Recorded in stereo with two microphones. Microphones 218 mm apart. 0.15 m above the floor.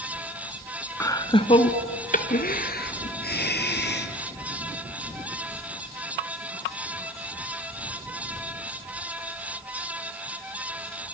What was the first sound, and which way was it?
Laughter, 15° left (ahead or behind).